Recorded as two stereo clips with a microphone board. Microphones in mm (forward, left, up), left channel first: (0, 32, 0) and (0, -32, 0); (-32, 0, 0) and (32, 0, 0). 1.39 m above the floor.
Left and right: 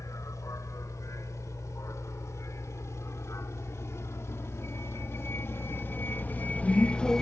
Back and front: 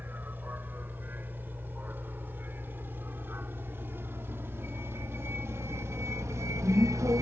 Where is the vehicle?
60° left; by 7.2 s 10° left.